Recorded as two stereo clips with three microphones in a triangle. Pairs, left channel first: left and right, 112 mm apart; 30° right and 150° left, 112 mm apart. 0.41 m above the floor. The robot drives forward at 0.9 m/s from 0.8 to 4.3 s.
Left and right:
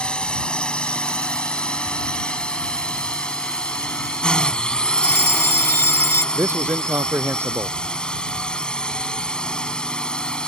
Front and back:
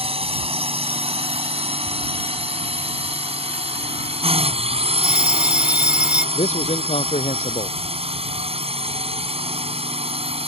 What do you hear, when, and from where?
0.0 s a drone: 170° left
5.0 s a fire alarm: 90° left
6.3 s a man speaking: 20° right